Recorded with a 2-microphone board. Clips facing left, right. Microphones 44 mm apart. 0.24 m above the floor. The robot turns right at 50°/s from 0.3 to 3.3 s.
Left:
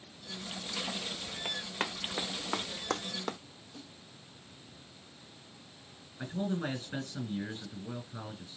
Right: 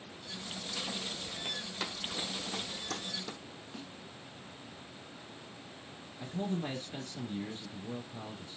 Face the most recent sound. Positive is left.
turn(degrees=55)  # may be behind; listen again after turning